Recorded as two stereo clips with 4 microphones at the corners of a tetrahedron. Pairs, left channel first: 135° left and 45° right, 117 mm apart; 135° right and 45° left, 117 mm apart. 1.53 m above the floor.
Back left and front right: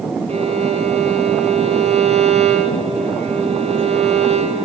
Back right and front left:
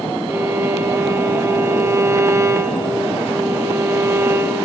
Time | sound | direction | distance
0.3 | a violin | 20° right | 1.9 m